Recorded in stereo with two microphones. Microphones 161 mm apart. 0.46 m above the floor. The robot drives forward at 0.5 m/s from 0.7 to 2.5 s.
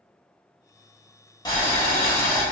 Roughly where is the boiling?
Left.